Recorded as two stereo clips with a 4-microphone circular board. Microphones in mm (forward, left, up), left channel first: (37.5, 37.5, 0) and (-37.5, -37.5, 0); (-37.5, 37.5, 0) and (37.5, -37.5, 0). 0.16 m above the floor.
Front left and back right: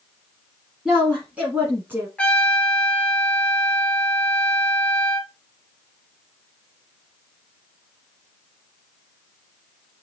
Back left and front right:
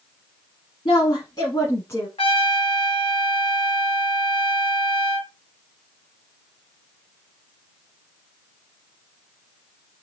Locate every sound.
0.8 s a woman speaking: 145° left, 1.6 m; by 2.1 s straight behind, 1.3 m
2.2 s a trumpet: 125° left, 0.9 m